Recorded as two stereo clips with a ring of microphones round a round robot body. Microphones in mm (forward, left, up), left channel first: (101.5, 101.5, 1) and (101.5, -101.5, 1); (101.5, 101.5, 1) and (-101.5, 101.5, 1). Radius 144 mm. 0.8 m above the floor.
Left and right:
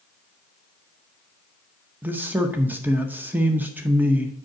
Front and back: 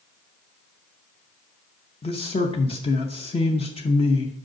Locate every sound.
2.0 s a man speaking: 20° right, 0.7 m